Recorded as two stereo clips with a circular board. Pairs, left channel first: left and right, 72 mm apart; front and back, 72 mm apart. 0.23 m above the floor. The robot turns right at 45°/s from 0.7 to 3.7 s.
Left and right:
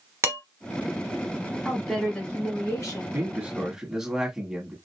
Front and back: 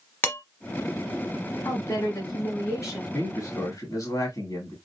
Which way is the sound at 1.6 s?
10° right.